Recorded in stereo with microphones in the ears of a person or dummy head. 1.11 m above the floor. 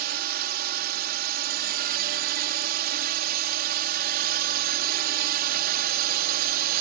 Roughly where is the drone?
Right.